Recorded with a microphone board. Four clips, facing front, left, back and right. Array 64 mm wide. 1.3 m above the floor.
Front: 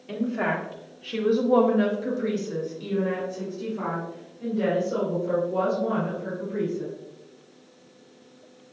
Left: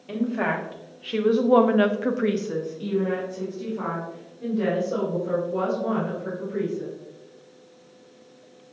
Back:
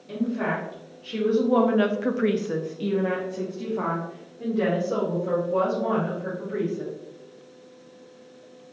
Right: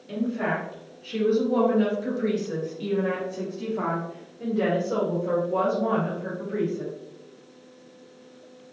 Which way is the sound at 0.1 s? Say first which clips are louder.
Left 2 dB, even; 60° left.